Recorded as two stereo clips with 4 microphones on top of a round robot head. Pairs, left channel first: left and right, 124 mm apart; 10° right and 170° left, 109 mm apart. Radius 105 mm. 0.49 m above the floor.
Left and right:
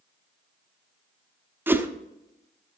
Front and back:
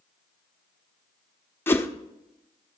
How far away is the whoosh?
About 1.1 m.